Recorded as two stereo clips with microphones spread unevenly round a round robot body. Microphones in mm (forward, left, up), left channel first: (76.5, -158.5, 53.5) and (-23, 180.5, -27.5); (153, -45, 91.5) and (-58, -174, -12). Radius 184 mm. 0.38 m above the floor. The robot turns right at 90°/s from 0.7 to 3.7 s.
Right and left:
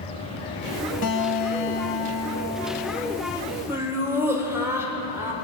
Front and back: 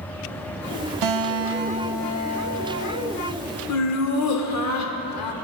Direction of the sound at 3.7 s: 40° left.